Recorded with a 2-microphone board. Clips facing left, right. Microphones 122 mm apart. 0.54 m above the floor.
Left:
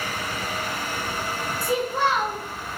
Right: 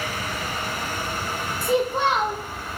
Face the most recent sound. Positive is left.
turn(degrees=-20)  # may be behind; listen again after turning